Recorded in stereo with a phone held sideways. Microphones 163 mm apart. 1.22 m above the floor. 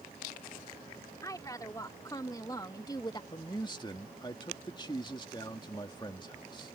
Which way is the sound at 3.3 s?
30° left (ahead or behind).